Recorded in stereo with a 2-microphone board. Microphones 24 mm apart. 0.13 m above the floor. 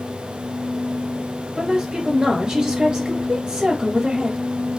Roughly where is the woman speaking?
Right.